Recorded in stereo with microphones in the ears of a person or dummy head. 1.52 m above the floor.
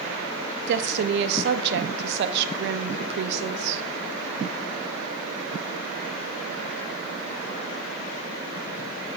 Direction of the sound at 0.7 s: 60° right (ahead or behind).